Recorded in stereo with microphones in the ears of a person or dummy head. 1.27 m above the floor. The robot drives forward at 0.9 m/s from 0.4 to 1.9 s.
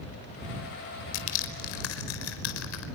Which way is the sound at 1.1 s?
70° left (ahead or behind).